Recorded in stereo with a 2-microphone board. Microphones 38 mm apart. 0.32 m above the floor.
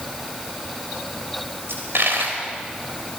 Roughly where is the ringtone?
No ringtone in this recording.